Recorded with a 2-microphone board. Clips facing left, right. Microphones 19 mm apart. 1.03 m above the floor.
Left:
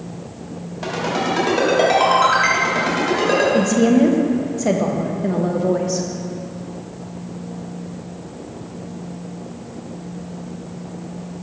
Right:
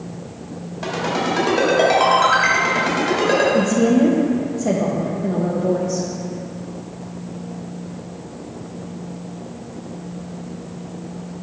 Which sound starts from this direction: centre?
A ringtone, at 0.8 s.